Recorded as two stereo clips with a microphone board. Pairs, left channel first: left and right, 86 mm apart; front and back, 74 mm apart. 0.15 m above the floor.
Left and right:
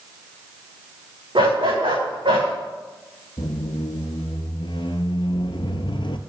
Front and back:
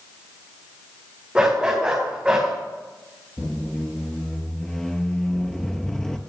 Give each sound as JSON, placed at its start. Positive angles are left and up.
{"t": 1.4, "sound": "a dog barking", "azimuth_deg": -105, "distance_m": 4.0}
{"t": 3.4, "sound": "a squeak", "azimuth_deg": 85, "distance_m": 0.7}